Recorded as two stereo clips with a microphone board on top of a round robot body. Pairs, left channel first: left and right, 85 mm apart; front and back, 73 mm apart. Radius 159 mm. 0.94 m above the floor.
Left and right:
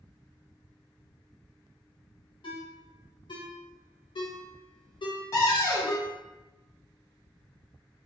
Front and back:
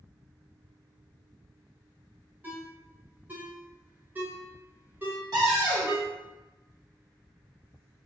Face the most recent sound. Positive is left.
turn(degrees=150)